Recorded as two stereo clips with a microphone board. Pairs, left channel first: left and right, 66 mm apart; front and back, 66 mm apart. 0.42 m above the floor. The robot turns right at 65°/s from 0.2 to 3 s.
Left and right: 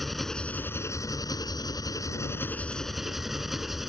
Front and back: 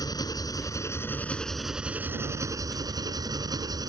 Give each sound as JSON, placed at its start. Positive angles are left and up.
{"t": 0.0, "sound": "an engine running", "azimuth_deg": 0}